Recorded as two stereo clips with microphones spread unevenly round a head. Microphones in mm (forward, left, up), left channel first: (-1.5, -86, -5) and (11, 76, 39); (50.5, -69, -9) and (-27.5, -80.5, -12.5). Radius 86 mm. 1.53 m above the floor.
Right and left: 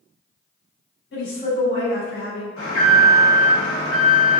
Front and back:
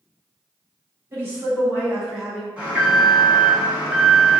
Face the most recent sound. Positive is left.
turn(degrees=-95)